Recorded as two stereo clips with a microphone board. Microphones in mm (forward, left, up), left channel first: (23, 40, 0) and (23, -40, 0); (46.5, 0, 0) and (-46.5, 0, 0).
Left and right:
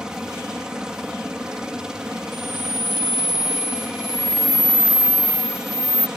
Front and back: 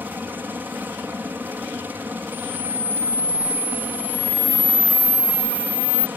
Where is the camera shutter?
5° right.